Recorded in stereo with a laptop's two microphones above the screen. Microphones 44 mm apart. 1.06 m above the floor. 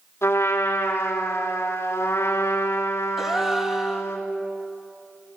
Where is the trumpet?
80° left, 3.5 m.